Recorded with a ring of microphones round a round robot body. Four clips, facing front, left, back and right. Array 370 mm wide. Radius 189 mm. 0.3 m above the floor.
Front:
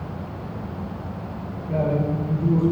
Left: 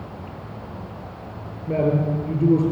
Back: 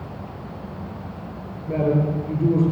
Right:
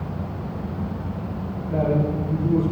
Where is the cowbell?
No cowbell in this recording.